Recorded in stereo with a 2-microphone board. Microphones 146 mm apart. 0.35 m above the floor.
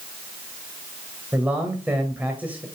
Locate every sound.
1.3 s a man speaking: 10° right (ahead or behind), 1.9 m